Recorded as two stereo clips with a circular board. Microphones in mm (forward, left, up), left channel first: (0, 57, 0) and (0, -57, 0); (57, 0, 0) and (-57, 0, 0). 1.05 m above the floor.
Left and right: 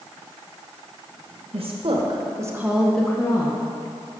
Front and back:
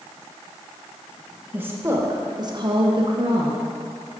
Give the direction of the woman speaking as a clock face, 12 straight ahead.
4 o'clock.